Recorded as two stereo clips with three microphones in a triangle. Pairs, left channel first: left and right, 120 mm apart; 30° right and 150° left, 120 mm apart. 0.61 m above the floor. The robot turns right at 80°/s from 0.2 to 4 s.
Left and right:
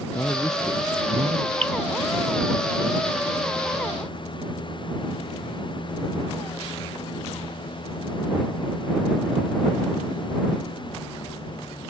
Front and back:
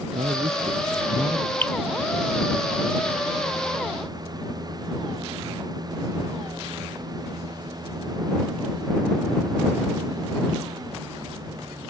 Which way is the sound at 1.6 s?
105° right.